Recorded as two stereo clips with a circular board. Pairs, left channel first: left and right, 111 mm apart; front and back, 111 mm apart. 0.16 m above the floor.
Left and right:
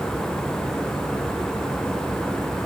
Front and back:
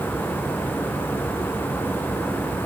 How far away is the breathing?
No breathing in this recording.